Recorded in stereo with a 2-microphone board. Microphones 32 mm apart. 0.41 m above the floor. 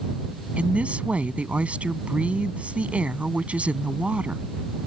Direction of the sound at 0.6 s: 45° right (ahead or behind).